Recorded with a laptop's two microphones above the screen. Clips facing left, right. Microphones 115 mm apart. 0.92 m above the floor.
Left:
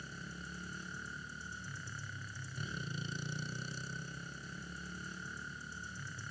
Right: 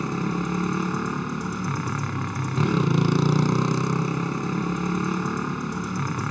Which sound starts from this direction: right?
A motorcycle, at 0.0 s.